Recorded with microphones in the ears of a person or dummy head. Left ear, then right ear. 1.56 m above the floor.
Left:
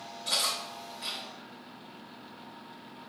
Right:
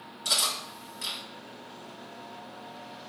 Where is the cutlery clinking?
55° right (ahead or behind), 1.7 m.